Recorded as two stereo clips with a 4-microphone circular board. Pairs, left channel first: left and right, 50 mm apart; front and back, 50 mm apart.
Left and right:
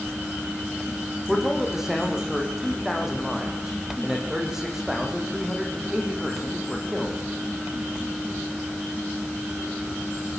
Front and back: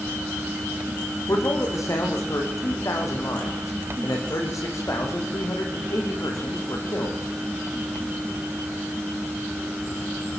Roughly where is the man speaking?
Ahead.